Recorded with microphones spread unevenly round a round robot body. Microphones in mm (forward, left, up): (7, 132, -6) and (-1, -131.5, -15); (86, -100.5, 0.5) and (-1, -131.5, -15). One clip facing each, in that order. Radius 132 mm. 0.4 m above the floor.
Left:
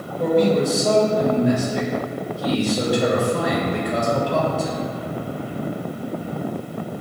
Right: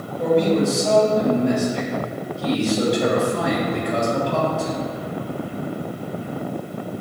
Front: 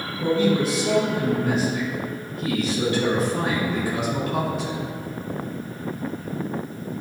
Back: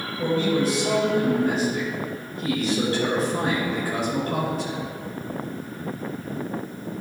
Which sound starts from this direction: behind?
A man speaking, at 0.2 s.